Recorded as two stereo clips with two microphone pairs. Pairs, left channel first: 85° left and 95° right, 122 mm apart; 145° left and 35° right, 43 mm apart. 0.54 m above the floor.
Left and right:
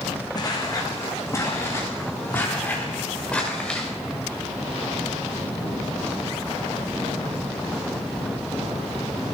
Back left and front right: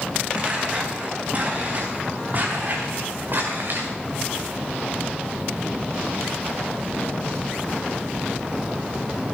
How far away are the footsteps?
About 2.5 m.